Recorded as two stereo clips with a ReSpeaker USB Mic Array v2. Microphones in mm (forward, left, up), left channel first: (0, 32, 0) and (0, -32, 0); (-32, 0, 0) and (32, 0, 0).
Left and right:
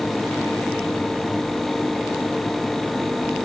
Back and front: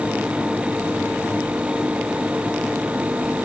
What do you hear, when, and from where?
Only background noise.